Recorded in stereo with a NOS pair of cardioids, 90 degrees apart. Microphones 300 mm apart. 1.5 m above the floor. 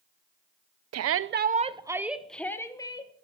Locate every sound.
0.9 s a shout: 60° right, 0.6 m; by 3.1 s 15° left, 1.4 m